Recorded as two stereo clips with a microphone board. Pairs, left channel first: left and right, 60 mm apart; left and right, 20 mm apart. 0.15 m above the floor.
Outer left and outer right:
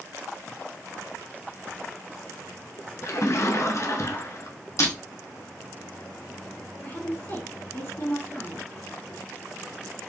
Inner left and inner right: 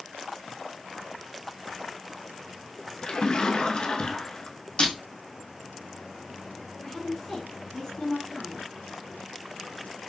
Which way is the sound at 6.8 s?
45° left (ahead or behind).